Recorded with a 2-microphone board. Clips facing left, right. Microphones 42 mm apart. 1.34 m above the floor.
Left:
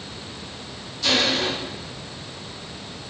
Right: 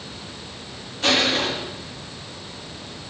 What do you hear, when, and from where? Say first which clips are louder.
1.0 s crushing: right 1 dB; 45° right (ahead or behind), 2 m